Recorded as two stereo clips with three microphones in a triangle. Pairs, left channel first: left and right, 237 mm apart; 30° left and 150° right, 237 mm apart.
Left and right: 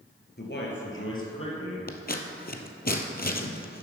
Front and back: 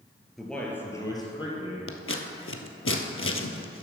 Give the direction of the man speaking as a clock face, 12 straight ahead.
8 o'clock.